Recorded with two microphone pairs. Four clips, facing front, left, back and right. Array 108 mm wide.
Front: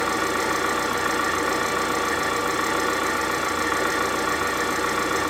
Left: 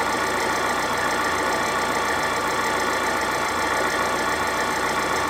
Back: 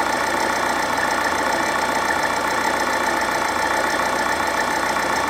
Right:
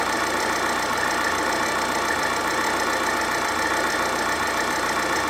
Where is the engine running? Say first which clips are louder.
Left 1 dB, back 3 dB; 175° right, 5.5 m.